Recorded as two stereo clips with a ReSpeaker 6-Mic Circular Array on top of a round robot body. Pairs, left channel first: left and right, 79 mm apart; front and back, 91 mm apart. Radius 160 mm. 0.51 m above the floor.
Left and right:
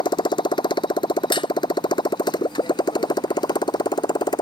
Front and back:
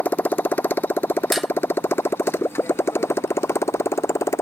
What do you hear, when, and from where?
0.0 s a motorcycle: 70° left; by 4.4 s 60° left
1.3 s dishes clattering: 90° left